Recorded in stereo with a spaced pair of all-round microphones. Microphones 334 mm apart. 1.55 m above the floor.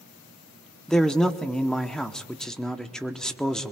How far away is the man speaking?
About 0.8 m.